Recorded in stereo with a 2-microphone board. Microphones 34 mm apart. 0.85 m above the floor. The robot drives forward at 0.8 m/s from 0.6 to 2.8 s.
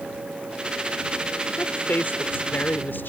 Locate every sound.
1.6 s a woman speaking: 65° left (ahead or behind); by 3.1 s 75° left (ahead or behind)